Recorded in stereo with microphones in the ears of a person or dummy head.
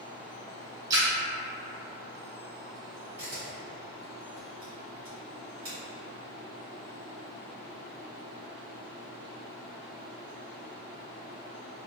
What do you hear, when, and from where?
0.9 s a splash: 15° right (ahead or behind), 0.6 m
3.2 s a camera shutter: 15° right (ahead or behind), 1.0 m